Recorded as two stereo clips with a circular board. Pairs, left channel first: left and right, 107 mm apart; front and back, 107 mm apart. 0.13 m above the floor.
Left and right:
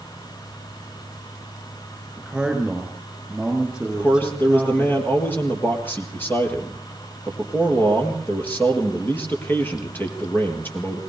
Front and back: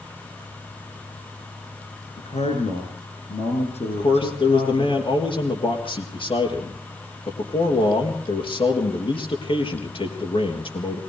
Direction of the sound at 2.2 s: 5° right.